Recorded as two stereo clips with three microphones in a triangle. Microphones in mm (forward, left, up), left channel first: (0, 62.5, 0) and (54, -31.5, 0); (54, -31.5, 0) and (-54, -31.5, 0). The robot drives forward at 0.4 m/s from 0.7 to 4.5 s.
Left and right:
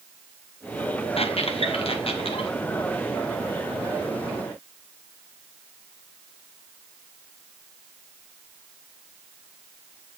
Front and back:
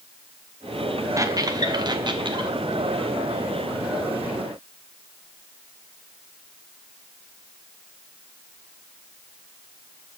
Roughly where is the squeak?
Behind left.